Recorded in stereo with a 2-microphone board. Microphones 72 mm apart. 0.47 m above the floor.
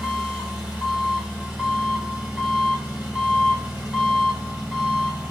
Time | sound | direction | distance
0.0 | an engine running | 15° right (ahead or behind) | 1.3 m